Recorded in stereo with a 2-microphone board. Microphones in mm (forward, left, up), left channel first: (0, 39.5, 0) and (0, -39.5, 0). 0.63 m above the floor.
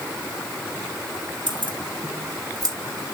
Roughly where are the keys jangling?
Right.